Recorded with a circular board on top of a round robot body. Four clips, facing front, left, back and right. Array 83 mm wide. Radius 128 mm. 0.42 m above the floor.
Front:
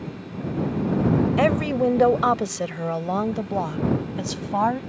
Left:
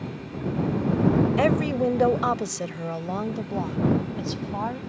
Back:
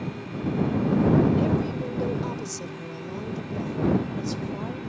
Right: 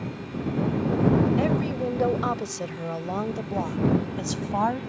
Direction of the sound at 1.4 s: 25° left.